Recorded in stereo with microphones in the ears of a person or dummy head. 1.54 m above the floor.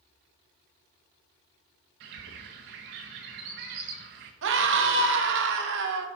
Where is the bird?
55° right (ahead or behind), 1.1 m.